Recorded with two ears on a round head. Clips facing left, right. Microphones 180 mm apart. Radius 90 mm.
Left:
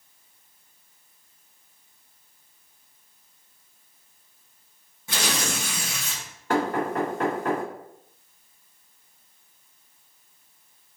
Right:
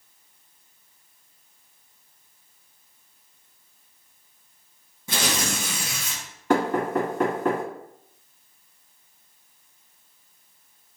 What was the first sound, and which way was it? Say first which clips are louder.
Tearing paper: right 1 dB; 80° right.